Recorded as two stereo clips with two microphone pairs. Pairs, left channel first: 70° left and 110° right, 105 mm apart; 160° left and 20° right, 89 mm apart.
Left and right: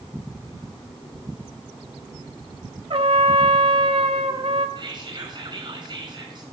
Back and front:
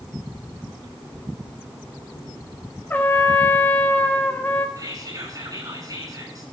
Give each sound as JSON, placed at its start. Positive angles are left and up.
{"t": 2.9, "sound": "a trumpet", "azimuth_deg": -130, "distance_m": 0.9}
{"t": 4.8, "sound": "whispering", "azimuth_deg": -70, "distance_m": 5.0}